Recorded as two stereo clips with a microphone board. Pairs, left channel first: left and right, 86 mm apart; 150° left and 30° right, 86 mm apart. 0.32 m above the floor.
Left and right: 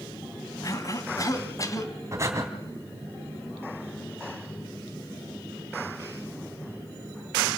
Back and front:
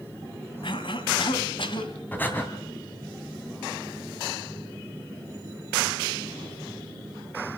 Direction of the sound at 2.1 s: 140° right.